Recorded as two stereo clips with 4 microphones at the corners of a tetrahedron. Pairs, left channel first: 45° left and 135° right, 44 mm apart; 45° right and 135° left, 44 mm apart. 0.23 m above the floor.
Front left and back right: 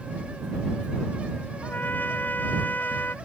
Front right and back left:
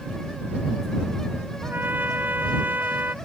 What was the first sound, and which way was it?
A trumpet, 95° left.